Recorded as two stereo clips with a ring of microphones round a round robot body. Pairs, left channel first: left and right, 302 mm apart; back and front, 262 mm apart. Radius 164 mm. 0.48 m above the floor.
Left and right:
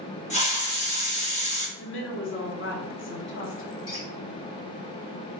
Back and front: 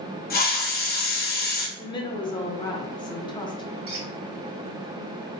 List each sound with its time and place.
0.3 s a hiss: 145° left, 1.6 m
1.8 s a woman speaking: 115° left, 0.9 m
3.9 s a squeak: 45° left, 1.4 m